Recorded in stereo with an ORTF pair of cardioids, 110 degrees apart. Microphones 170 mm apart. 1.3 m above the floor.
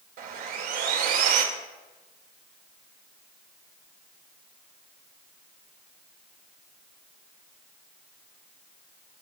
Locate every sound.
0.2 s sawing: 60° right, 2.5 m